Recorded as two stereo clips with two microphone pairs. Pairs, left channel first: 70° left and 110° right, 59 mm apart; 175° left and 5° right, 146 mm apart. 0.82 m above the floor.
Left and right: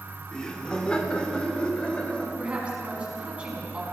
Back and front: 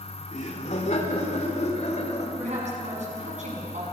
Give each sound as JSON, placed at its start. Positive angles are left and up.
{"t": 0.3, "sound": "laughter", "azimuth_deg": 145, "distance_m": 2.5}
{"t": 2.4, "sound": "a woman speaking", "azimuth_deg": -40, "distance_m": 6.0}